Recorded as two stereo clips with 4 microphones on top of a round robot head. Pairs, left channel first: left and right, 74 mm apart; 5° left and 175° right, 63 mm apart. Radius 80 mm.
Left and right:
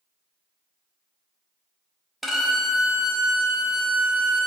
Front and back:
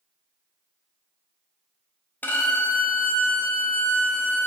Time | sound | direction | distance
2.2 | a violin | straight ahead | 0.5 m